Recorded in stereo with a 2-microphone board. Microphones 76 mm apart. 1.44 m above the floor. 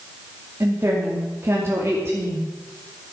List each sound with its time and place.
0.6 s a woman speaking: 35° right (ahead or behind), 2.5 m